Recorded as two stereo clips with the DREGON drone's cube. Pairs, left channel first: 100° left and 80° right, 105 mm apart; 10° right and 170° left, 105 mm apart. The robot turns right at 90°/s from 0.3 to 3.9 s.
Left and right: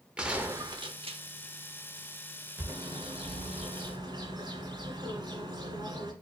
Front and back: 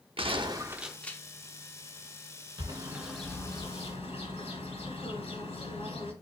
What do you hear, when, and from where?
0.2 s a gunshot: 160° right, 0.6 m; by 1.2 s 75° right, 0.6 m
2.6 s a bird: 150° right, 2.5 m; by 6.1 s 35° right, 2.5 m